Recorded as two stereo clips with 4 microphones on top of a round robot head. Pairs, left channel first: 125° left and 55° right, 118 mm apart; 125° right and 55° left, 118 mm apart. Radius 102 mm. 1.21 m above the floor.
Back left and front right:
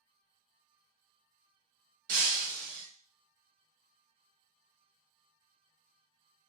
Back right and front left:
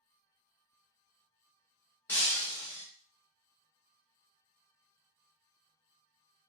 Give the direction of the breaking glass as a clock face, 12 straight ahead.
2 o'clock.